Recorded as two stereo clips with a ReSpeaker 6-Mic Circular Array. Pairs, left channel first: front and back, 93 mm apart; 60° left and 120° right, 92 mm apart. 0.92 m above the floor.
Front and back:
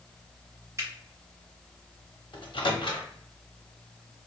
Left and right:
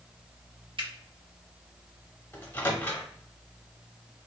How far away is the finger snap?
About 0.8 m.